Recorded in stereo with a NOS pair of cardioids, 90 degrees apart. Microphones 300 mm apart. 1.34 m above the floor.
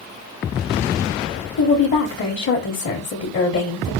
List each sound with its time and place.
1.6 s a woman speaking: 55° left, 1.2 m